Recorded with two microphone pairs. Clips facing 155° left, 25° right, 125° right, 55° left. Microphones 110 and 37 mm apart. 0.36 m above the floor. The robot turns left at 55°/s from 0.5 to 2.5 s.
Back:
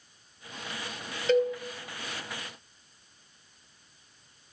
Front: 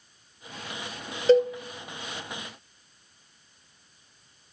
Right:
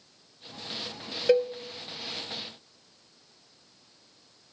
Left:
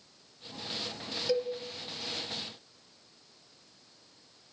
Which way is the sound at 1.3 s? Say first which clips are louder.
Front 5 dB, right 8 dB; 80° right.